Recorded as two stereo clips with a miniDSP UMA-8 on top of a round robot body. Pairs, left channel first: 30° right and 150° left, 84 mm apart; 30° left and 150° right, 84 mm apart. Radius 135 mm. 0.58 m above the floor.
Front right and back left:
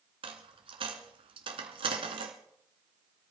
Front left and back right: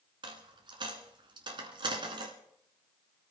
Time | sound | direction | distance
0.2 | a dropped coin | 175° left | 1.0 m